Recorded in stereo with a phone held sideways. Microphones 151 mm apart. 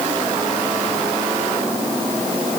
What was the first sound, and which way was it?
Only background noise.